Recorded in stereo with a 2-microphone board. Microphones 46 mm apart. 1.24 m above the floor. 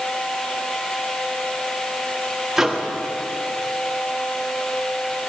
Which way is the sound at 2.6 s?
10° right (ahead or behind).